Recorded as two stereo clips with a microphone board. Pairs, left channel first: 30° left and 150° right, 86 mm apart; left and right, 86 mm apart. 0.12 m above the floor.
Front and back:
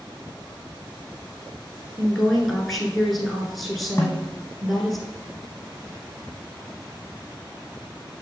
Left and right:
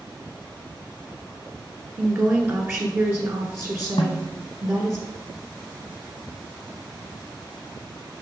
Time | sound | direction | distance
2.0 | a woman speaking | 60° right | 1.3 m
4.0 | a snare drum | 90° left | 1.5 m